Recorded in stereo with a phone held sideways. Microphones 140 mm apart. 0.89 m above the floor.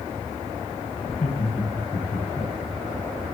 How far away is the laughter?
About 9 m.